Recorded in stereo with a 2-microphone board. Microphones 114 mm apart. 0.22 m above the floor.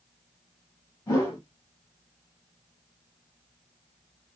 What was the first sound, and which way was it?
A whoosh, 30° left (ahead or behind).